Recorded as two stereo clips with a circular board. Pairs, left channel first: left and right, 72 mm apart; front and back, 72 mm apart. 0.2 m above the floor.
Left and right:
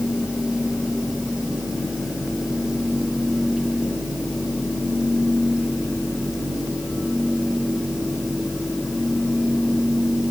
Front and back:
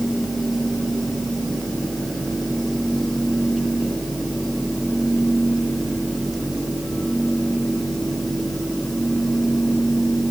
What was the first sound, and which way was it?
Only background noise.